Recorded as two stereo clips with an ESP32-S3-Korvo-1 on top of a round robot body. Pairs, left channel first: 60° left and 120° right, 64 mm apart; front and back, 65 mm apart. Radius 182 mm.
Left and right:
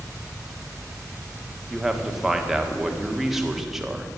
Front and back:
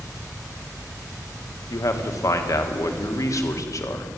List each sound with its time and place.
1.7 s a man speaking: 35° right, 1.6 m